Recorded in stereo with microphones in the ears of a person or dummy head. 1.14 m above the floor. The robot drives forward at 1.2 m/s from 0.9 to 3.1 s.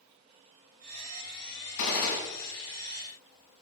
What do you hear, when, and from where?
1.8 s a gunshot: 75° left (ahead or behind), 4 m; by 2.2 s 80° left, 4 m